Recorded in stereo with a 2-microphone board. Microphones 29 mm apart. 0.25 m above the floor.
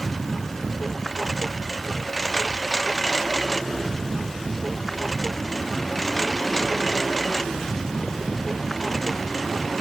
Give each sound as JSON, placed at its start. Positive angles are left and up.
{"t": 0.0, "sound": "a lawn mower", "side_deg": 5}